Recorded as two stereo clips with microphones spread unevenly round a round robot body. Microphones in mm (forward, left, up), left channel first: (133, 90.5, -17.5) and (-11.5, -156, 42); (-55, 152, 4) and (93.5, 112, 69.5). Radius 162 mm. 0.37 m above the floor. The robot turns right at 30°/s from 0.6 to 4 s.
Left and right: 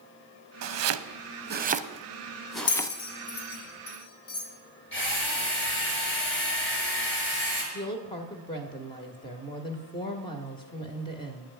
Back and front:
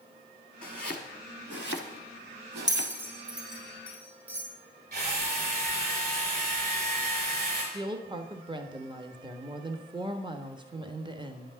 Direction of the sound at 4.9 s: 10° left.